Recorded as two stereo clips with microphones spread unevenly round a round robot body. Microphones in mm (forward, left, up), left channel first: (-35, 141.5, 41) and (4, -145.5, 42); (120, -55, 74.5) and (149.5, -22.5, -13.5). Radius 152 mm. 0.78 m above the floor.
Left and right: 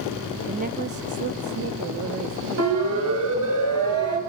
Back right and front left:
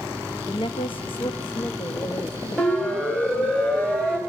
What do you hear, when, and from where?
0.5 s a woman speaking: 70° right, 1.0 m; by 3.6 s 95° right, 2.5 m
2.6 s a siren: 40° right, 7 m; by 4.2 s 45° right, 5.5 m